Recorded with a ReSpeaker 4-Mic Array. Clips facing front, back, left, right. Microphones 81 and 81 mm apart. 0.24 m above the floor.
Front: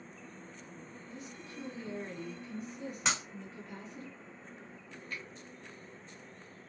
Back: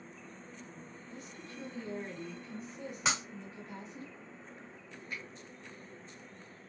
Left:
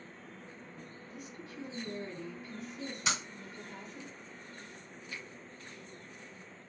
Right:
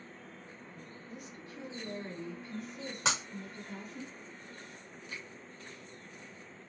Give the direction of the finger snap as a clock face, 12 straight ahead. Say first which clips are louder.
Even, even; 3 o'clock.